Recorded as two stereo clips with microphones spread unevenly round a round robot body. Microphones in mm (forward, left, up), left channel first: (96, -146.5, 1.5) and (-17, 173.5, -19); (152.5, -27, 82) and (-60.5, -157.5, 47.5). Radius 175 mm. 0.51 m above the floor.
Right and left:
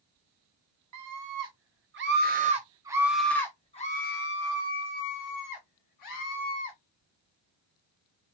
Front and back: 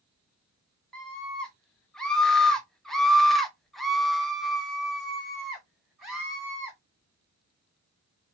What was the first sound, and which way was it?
A scream, 125° left.